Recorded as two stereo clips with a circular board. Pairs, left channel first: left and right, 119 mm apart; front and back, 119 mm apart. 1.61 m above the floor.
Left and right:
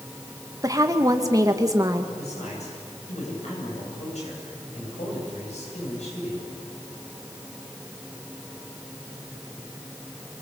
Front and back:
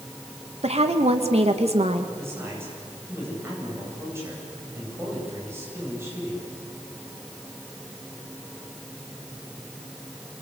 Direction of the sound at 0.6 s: 150° right.